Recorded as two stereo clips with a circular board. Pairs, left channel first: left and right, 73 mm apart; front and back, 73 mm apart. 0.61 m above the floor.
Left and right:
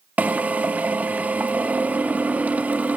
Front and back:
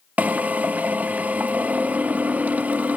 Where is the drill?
140° right, 0.7 m.